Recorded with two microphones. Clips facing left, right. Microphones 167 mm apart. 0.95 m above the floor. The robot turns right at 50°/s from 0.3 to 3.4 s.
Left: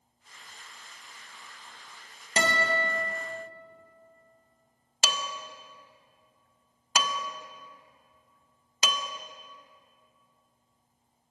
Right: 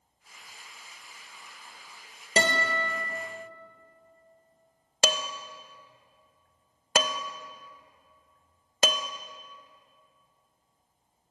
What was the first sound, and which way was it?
A guitar, 40° right.